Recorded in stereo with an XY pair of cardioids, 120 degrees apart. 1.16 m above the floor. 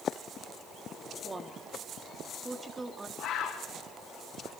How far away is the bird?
About 7 m.